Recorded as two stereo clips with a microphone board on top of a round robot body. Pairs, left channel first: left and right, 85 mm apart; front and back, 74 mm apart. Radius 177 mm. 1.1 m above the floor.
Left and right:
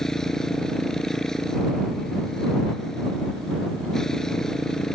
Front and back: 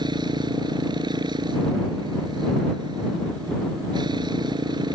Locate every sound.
0.0 s a motorcycle: 175° left